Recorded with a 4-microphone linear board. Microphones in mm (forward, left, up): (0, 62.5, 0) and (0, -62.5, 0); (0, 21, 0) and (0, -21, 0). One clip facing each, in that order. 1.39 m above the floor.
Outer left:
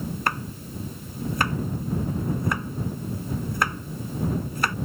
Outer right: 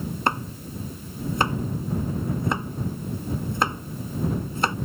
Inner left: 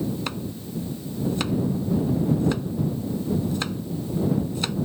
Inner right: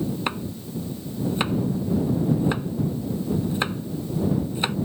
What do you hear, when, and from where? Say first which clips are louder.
0.3 s chopping: outer right 3 dB, inner right 2 dB; 25° right (ahead or behind)